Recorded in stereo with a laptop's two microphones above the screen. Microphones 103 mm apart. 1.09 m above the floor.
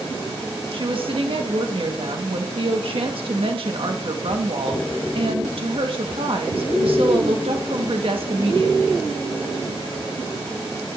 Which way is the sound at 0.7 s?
60° right (ahead or behind).